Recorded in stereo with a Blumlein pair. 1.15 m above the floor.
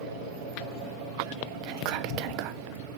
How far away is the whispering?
About 1.1 m.